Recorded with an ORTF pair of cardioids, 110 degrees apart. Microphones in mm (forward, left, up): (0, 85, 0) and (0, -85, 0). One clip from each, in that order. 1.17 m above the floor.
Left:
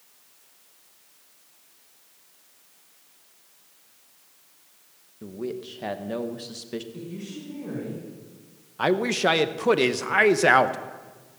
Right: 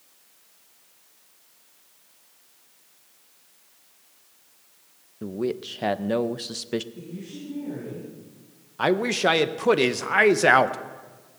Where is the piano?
I don't hear a piano.